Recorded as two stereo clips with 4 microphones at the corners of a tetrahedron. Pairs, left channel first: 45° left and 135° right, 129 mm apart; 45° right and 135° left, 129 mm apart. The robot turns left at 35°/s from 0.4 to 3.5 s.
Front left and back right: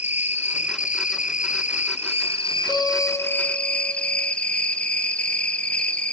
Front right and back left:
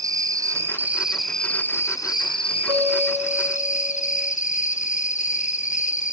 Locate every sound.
0.0 s an insect: 75° left, 0.8 m; by 6.1 s 35° right, 0.8 m
2.7 s a guitar: 125° right, 6 m; by 4.3 s 150° right, 6 m